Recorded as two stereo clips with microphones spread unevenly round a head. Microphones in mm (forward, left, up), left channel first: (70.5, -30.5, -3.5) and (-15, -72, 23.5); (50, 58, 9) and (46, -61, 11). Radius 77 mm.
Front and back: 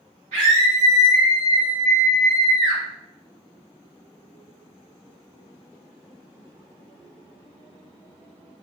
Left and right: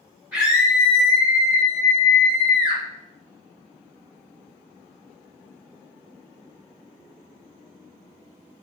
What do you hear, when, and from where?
0.3 s a scream: 170° right, 1.5 m